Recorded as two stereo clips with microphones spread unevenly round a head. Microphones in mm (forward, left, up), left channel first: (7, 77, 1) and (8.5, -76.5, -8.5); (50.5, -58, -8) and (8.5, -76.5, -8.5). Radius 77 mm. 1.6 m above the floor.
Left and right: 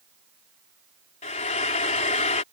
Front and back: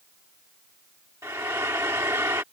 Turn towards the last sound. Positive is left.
turn(degrees=140)